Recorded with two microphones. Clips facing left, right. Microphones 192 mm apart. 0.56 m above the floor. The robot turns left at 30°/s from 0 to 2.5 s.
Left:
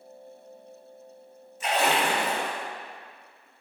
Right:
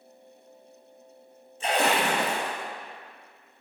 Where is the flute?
No flute in this recording.